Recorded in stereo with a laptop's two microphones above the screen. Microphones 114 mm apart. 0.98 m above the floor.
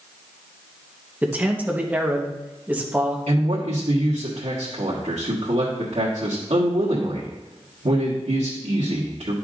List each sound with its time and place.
1.2 s a man speaking: 15° right (ahead or behind), 1.0 m
3.3 s a man speaking: 70° right (ahead or behind), 1.6 m